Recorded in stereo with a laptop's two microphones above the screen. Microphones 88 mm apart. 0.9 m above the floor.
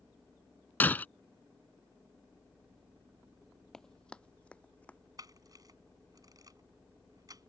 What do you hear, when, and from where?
0.8 s breaking glass: 20° left (ahead or behind)
3.7 s running footsteps: 5° left (ahead or behind); by 5.0 s 15° left (ahead or behind)
5.2 s a camera shutter: 45° right (ahead or behind)